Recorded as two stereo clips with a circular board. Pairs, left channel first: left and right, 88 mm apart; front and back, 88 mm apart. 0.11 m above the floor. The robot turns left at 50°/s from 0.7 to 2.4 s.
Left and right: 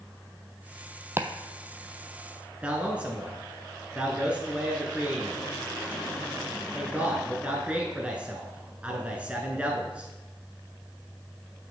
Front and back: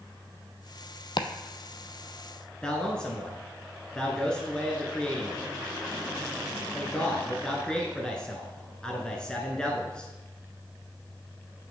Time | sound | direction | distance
1.2 | chopping | 30° right | 0.5 m
2.6 | a man speaking | 55° right | 1.1 m